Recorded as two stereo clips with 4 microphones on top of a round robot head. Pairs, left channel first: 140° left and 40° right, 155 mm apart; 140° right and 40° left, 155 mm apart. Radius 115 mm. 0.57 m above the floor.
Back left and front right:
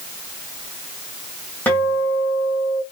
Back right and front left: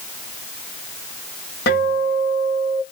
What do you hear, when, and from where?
1.7 s a guitar: 140° right, 1.6 m